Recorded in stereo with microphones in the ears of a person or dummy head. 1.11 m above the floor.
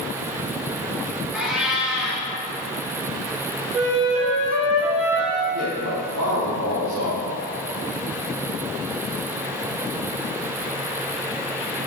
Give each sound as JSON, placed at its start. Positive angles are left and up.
{"t": 1.3, "sound": "a cat meowing", "side_deg": -5, "distance_m": 3.5}
{"t": 3.7, "sound": "a flute", "side_deg": -40, "distance_m": 2.5}
{"t": 5.5, "sound": "a man speaking", "side_deg": -75, "distance_m": 3.5}